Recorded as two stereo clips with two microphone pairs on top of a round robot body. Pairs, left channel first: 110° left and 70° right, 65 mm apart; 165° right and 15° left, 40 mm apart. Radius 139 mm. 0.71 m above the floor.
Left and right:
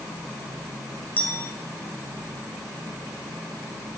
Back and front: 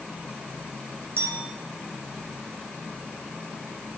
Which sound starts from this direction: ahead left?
A clink, at 1.2 s.